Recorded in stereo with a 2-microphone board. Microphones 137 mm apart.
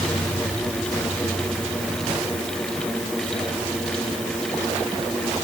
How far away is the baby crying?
No baby crying in this recording.